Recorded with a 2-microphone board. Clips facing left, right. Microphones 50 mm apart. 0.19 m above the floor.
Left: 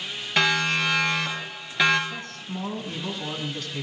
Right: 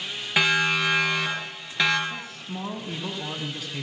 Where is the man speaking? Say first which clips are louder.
Even; 10° right (ahead or behind), 1.9 m.